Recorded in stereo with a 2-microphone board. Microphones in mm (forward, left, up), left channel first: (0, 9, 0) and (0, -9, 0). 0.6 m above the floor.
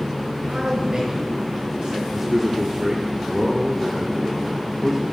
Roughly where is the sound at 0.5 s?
Right.